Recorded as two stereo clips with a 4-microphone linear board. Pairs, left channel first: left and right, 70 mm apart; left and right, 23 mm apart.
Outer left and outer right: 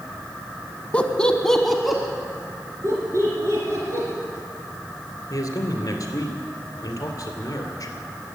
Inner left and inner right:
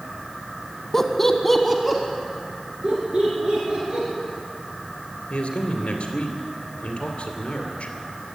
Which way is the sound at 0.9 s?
15° left (ahead or behind).